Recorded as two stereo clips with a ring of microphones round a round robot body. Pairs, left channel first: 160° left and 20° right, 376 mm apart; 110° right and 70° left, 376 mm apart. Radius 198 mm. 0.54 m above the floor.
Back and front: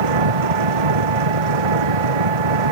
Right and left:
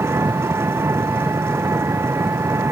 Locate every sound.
0.0 s an engine running: 15° right